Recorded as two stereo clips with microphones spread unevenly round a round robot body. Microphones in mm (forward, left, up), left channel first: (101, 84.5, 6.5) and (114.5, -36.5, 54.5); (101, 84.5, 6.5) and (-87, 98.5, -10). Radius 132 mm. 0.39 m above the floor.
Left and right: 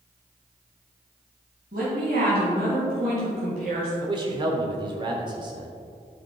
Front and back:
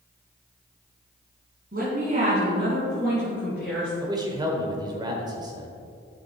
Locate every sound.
1.7 s a woman speaking: 130° right, 2.5 m; by 3.9 s 95° right, 4.5 m
4.0 s a man speaking: 145° right, 1.1 m